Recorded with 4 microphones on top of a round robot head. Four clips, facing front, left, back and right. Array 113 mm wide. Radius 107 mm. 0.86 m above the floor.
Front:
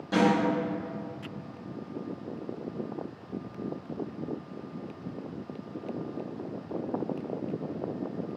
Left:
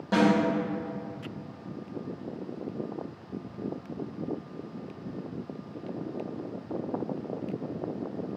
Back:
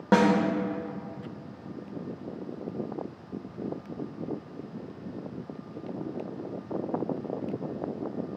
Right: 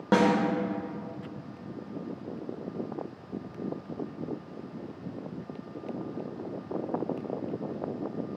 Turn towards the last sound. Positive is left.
turn(degrees=-140)